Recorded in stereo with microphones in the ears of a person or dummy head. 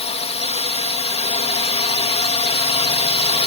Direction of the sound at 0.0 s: 30° left (ahead or behind).